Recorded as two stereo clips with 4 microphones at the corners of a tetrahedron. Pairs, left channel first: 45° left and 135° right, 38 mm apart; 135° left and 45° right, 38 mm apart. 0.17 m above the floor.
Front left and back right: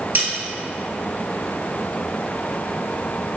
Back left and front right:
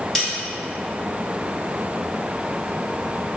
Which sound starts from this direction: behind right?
A snare drum, at 0.1 s.